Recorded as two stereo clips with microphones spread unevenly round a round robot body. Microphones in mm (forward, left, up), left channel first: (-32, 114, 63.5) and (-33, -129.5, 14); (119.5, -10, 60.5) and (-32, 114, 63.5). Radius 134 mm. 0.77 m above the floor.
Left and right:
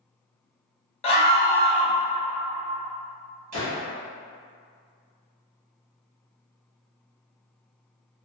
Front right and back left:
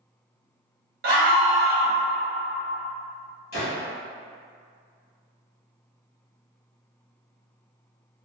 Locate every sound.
1.0 s a scream: 160° left, 0.8 m
3.5 s a gunshot: 60° right, 1.2 m